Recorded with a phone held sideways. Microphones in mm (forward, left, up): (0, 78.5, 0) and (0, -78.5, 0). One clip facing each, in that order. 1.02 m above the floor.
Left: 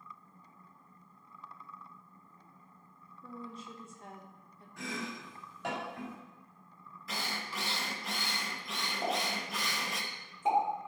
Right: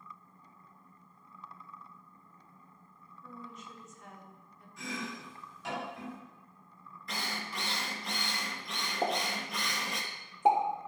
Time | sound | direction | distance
3.2 | a woman speaking | 30° left (ahead or behind) | 1.1 m
4.8 | chopping | 70° left (ahead or behind) | 3 m
7.1 | a drill | 5° left (ahead or behind) | 0.8 m
9.0 | a pop | 65° right (ahead or behind) | 1.6 m